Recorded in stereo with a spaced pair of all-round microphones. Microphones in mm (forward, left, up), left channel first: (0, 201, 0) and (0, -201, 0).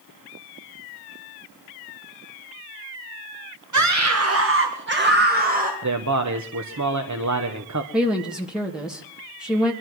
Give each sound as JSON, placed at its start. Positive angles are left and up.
{"t": 3.7, "sound": "a scream", "side_deg": -45, "distance_m": 1.2}
{"t": 5.8, "sound": "a man speaking", "side_deg": -45, "distance_m": 1.1}
{"t": 7.9, "sound": "a woman speaking", "side_deg": 0, "distance_m": 1.4}